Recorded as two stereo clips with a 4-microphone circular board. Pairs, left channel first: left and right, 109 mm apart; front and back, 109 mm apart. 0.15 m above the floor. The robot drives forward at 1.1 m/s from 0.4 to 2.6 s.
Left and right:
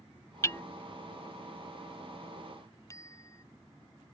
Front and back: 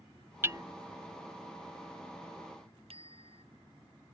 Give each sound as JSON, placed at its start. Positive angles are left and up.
{"t": 0.4, "sound": "hammering", "azimuth_deg": 130}
{"t": 2.9, "sound": "a bicycle bell", "azimuth_deg": 150}